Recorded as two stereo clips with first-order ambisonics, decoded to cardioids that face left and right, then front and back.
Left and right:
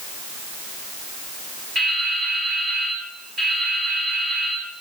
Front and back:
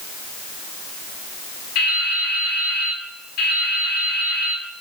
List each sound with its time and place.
1.8 s dripping: 20° right, 3.5 m